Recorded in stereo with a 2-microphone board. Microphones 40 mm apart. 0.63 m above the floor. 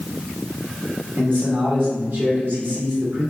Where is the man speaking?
55° right (ahead or behind), 1.6 m.